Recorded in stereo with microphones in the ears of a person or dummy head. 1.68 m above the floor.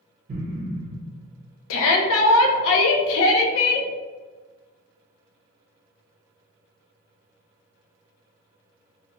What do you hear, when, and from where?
0.3 s an explosion: 45° right (ahead or behind), 0.9 m
1.7 s a shout: 80° left, 0.6 m